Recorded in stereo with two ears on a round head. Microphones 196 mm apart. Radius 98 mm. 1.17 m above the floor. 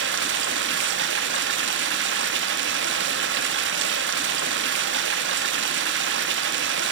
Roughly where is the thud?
No thud in this recording.